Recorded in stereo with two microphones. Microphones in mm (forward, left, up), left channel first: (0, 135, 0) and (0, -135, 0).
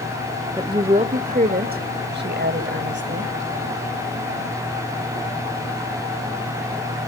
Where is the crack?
I don't hear a crack.